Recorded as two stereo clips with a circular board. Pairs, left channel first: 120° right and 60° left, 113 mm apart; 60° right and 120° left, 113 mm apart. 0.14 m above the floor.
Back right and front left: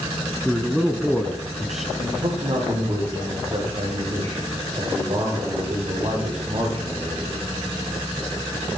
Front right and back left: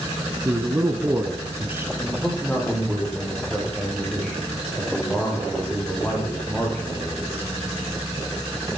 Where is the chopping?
No chopping in this recording.